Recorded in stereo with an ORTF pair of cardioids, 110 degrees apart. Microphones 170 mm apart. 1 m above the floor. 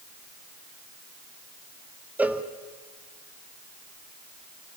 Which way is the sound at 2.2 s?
10° right.